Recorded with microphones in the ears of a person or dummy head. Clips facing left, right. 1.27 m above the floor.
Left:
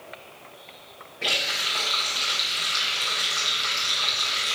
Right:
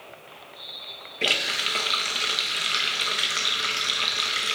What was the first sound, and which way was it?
A running tap, 30° right (ahead or behind).